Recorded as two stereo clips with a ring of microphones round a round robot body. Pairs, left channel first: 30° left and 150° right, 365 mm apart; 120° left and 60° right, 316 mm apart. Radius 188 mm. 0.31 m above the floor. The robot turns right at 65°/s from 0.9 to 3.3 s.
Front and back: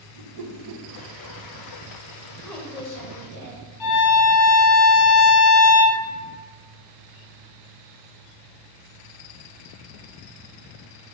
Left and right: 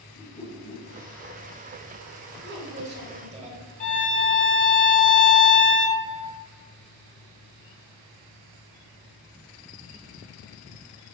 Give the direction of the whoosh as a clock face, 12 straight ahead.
6 o'clock.